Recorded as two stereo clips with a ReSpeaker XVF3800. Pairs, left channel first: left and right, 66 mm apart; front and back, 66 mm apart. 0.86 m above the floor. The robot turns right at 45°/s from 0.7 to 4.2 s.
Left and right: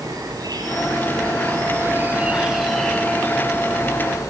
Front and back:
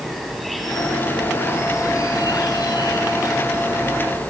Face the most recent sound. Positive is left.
turn(degrees=70)